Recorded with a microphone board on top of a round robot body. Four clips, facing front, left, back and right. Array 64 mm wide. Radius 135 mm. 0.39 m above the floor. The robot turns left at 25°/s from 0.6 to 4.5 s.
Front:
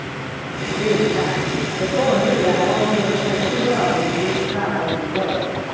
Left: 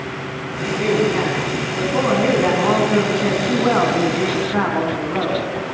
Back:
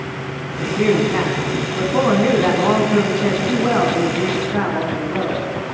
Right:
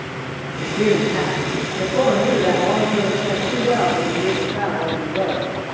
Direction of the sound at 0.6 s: 165° right.